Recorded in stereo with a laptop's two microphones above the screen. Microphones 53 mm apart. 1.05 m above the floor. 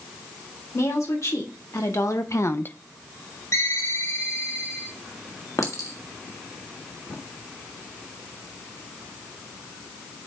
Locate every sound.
0.7 s a woman speaking: 85° left, 3.5 m; by 2.8 s 25° left (ahead or behind), 0.5 m
3.5 s a ringtone: 65° left (ahead or behind), 3 m
5.6 s a clink: 80° left, 1.7 m